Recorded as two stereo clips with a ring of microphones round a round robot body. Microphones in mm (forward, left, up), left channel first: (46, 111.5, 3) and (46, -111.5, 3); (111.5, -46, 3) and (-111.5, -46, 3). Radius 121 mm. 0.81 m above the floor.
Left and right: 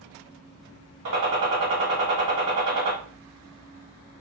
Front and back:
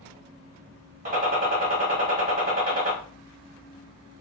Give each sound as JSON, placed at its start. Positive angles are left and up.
{"t": 1.1, "sound": "a gunshot", "azimuth_deg": -130, "distance_m": 1.6}